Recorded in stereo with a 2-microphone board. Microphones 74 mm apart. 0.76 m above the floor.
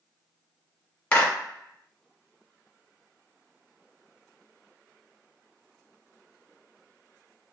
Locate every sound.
1.1 s a clap: 20° left (ahead or behind), 1.2 m